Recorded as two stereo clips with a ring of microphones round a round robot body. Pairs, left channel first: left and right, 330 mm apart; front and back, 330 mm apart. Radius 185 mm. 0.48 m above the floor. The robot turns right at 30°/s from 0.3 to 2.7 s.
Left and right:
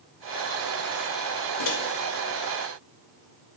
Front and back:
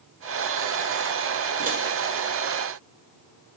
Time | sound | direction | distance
1.6 | a microwave | 110° left | 1.7 m